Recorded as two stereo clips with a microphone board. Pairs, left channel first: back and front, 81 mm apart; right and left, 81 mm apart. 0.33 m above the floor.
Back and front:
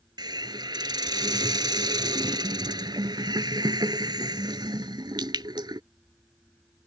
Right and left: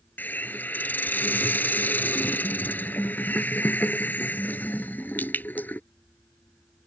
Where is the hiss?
25° right.